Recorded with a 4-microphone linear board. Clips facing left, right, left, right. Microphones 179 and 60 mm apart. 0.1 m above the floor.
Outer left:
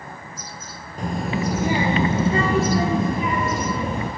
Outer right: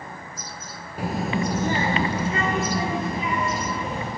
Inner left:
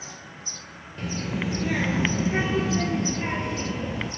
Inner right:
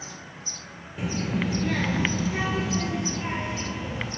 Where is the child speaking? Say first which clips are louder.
Even, inner right 2 dB; 10° right (ahead or behind), 0.9 m; by 4.1 s 60° left (ahead or behind), 1.4 m.